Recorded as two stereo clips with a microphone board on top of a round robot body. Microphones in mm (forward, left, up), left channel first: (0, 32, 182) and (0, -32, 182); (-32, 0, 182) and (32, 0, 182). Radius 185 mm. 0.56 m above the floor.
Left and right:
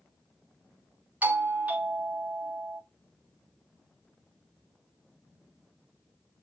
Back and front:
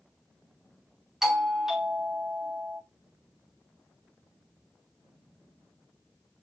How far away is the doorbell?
About 1.5 m.